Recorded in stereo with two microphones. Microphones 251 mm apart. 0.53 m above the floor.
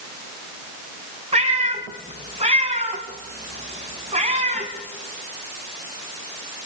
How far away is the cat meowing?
About 3 m.